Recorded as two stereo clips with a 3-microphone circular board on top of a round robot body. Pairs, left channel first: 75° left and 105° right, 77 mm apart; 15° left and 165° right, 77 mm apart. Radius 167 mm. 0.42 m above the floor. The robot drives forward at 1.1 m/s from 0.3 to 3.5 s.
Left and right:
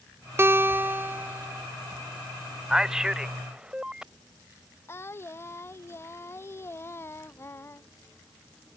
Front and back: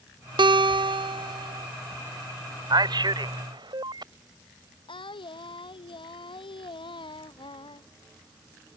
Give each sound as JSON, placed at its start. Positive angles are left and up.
{"t": 0.4, "sound": "a guitar", "azimuth_deg": -165}
{"t": 2.7, "sound": "a man speaking", "azimuth_deg": 175}
{"t": 4.9, "sound": "singing", "azimuth_deg": 15}